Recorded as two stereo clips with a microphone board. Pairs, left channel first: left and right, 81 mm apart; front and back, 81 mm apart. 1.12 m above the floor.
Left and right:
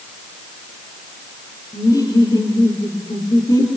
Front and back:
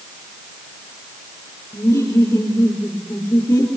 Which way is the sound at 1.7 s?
60° left.